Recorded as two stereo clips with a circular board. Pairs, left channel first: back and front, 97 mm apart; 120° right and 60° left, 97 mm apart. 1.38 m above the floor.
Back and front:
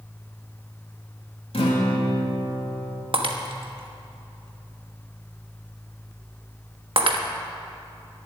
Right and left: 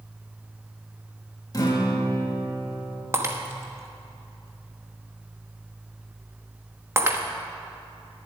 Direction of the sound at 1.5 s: 170° right.